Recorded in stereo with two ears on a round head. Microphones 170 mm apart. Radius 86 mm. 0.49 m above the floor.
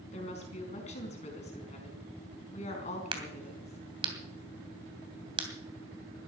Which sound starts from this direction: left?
A woman speaking, at 0.1 s.